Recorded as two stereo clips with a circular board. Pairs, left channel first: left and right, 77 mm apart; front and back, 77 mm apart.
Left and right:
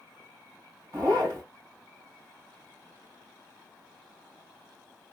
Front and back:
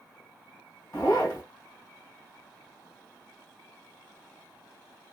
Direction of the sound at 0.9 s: 40° right.